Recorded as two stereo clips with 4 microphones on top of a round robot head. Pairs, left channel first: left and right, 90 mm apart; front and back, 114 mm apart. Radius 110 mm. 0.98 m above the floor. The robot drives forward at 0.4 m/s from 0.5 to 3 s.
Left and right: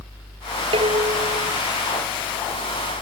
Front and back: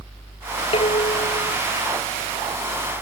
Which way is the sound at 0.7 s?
50° right.